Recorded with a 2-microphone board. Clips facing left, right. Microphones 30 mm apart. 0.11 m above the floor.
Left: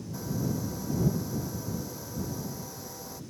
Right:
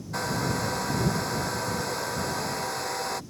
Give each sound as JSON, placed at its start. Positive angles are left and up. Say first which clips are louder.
{"t": 0.1, "sound": "a hair dryer", "louder": "right 5 dB", "side_deg": -70}